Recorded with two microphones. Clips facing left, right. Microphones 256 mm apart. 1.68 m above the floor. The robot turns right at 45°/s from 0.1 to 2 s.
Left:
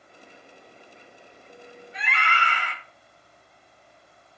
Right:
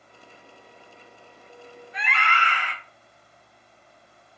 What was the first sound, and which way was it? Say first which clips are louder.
A scream: right 1 dB; 20° left (ahead or behind).